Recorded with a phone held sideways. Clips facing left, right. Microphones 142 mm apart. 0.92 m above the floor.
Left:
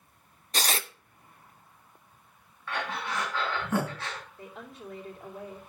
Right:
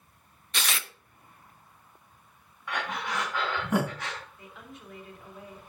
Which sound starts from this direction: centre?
Breathing, at 2.7 s.